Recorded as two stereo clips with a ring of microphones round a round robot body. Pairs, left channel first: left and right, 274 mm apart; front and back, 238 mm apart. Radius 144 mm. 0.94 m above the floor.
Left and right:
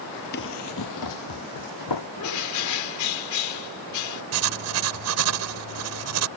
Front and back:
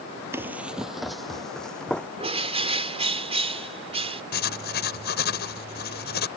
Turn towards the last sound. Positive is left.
turn(degrees=-55)